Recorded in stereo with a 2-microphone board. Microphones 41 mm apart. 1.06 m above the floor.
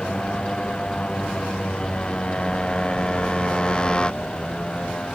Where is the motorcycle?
25° left (ahead or behind).